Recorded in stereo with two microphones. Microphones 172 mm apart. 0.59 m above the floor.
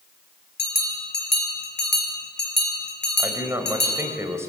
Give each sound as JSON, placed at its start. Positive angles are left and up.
{"t": 0.6, "sound": "a bell", "side_deg": 80, "distance_m": 3.0}
{"t": 3.2, "sound": "a man speaking", "side_deg": -15, "distance_m": 3.0}